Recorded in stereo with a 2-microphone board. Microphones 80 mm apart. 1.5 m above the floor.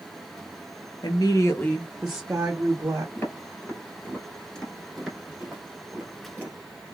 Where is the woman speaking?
60° left (ahead or behind), 0.7 m; by 3.0 s 45° right (ahead or behind), 1.0 m.